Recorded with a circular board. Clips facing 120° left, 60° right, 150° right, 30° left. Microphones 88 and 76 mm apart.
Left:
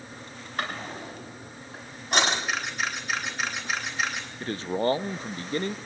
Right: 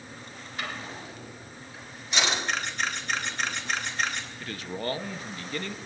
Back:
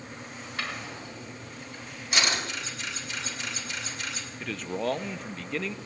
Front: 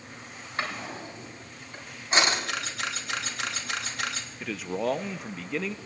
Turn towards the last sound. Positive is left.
turn(degrees=110)